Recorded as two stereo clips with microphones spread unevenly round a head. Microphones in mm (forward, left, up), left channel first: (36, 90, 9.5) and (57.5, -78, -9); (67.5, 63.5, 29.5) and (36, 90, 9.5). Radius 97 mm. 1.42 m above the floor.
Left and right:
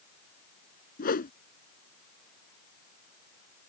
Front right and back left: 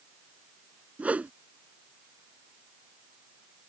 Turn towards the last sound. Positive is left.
turn(degrees=75)